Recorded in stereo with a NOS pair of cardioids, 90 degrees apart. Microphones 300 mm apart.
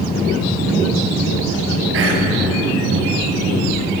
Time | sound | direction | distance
1.9 | whispering | 45° right | 0.7 m